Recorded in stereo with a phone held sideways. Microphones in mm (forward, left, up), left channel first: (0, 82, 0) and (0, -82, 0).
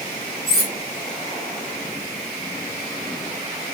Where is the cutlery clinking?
55° left (ahead or behind), 4 m.